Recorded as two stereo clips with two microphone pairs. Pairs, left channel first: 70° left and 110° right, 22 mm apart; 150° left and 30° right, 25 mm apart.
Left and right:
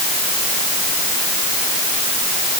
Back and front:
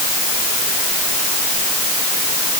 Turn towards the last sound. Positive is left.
No sound to turn to.